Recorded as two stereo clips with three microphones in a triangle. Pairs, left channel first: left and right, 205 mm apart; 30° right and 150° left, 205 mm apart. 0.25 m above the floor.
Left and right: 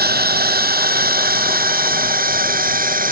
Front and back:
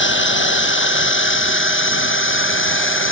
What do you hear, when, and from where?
0.0 s a drone: 50° right; by 3.1 s 45° right